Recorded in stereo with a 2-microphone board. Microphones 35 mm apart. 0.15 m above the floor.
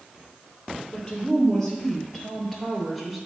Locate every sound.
0.9 s a woman speaking: 20° left (ahead or behind), 3 m; by 3.2 s centre (ahead or behind), 1.9 m